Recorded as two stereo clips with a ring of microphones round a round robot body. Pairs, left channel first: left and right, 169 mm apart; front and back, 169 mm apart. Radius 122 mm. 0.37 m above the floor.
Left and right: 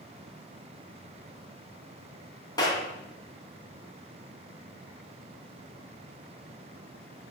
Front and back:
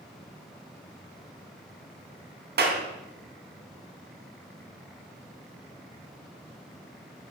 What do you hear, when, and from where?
2.6 s a clap: 165° left, 3 m